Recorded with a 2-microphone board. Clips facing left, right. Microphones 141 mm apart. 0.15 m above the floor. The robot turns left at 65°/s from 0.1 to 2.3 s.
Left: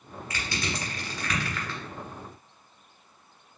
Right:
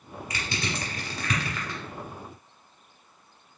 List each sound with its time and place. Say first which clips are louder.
0.3 s crushing: even; 20° right (ahead or behind), 1.4 m; by 1.8 s 15° right (ahead or behind), 1.4 m